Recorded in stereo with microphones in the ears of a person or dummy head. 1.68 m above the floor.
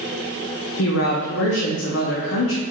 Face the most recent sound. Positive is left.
turn(degrees=75)  # may be behind; listen again after turning